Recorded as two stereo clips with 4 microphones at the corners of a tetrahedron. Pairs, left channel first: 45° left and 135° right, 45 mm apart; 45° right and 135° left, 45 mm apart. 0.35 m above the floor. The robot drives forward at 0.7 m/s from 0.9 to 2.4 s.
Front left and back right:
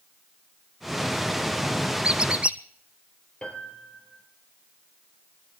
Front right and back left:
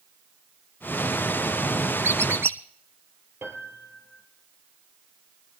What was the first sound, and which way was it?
A squeak, 155° left.